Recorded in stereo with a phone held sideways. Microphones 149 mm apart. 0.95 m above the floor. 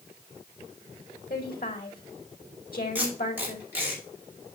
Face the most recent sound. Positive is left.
turn(degrees=-15)  # may be behind; listen again after turning